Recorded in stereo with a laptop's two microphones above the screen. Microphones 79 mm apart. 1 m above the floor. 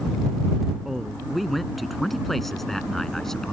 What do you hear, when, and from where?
0.8 s a man speaking: centre (ahead or behind); by 3.5 s 5° left (ahead or behind)